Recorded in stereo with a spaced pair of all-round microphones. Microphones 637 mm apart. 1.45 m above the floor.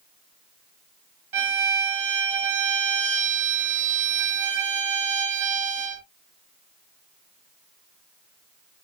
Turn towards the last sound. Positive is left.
turn(degrees=-50)  # may be behind; listen again after turning